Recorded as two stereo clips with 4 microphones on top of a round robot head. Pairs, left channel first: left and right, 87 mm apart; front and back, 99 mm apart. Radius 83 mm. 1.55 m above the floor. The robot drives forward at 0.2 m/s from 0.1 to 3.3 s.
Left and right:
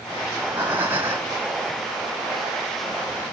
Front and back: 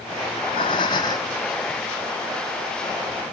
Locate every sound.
0.3 s breathing: 15° right, 0.7 m; by 1.4 s 30° right, 0.6 m